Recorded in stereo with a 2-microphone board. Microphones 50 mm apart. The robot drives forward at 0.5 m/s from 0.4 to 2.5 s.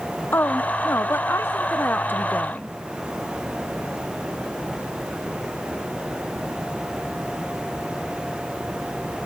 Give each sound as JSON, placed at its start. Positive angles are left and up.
{"t": 0.3, "sound": "a woman speaking", "side_deg": 50}